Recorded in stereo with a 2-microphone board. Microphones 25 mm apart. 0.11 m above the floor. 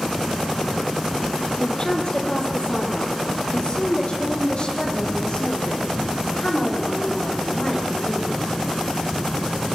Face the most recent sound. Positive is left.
turn(degrees=45)  # may be behind; listen again after turning